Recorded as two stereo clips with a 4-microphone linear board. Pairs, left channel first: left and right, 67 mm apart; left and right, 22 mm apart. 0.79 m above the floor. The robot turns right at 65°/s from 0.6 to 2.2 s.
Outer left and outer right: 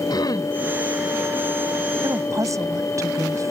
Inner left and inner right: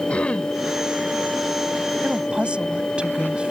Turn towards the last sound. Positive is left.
turn(degrees=-50)  # may be behind; listen again after turning